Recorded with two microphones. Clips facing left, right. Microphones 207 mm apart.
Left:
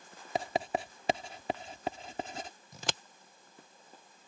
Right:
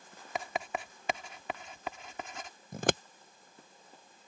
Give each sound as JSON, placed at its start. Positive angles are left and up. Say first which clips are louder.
{"t": 0.3, "sound": "writing", "louder": "left 4 dB", "side_deg": 35}
{"t": 2.7, "sound": "scissors", "louder": "right 11 dB", "side_deg": -55}